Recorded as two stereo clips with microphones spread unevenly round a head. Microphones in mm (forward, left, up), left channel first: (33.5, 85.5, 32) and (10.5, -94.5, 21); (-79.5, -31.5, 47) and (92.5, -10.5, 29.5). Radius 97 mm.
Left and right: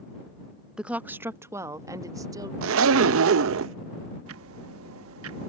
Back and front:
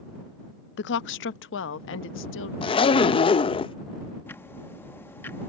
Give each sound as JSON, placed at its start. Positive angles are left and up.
{"t": 0.8, "sound": "a woman speaking", "azimuth_deg": 180}
{"t": 2.6, "sound": "a zipper", "azimuth_deg": -110}
{"t": 4.3, "sound": "ticking", "azimuth_deg": -95}